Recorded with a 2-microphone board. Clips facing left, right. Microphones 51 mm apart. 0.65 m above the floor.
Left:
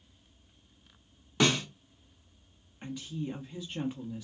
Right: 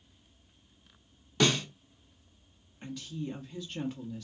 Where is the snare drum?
20° left (ahead or behind), 1.2 m.